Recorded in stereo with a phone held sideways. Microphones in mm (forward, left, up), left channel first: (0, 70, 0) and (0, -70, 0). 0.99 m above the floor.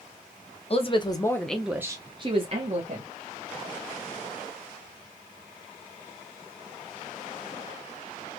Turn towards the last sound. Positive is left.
turn(degrees=-55)  # may be behind; listen again after turning